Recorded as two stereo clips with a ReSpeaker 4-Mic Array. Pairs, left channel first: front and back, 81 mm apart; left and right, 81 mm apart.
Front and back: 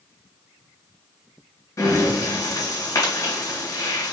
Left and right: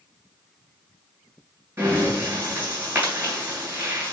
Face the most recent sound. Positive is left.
turn(degrees=-40)